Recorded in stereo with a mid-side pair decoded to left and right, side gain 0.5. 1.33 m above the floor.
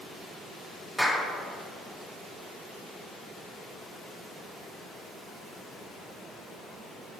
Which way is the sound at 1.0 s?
5° right.